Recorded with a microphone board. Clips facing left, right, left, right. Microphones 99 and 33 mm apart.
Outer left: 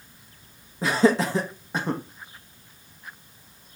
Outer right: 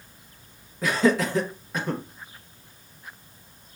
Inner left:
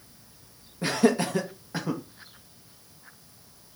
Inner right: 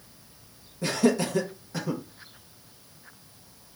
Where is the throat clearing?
No throat clearing in this recording.